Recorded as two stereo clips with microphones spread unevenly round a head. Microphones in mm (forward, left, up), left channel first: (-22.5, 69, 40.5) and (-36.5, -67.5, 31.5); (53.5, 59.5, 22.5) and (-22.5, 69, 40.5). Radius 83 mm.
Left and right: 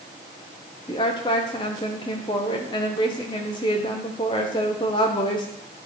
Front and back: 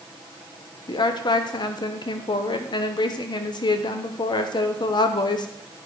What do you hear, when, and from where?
0.9 s a woman speaking: 25° left, 0.8 m